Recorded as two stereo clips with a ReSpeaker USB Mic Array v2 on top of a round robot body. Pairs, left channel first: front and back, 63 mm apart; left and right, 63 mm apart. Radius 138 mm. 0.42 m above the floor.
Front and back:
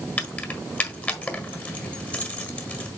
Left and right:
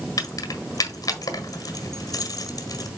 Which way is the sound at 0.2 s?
65° left.